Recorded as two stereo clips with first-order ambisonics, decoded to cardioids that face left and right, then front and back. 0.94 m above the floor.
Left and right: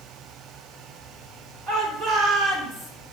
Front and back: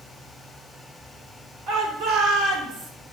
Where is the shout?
145° right, 3 m; by 2.9 s 175° left, 1.9 m.